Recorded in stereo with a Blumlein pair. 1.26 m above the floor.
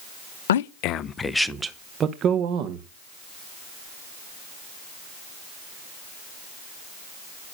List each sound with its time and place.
0.5 s a man speaking: 60° left, 0.6 m; by 2.9 s 40° right, 1.3 m